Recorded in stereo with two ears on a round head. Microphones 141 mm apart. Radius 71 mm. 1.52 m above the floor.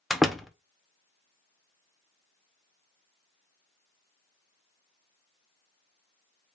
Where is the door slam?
Centre (ahead or behind), 0.5 m.